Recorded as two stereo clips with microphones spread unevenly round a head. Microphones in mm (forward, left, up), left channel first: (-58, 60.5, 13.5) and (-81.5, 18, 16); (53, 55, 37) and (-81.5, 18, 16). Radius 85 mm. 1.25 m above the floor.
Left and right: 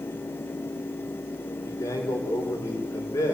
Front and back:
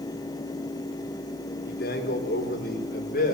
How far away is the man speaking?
About 4 m.